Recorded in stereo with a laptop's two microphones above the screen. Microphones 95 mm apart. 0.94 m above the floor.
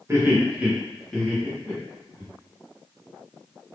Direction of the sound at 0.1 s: 30° right (ahead or behind).